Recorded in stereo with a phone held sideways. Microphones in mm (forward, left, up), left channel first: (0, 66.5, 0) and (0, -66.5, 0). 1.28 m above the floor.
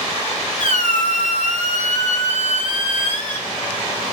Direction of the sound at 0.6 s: 70° left (ahead or behind).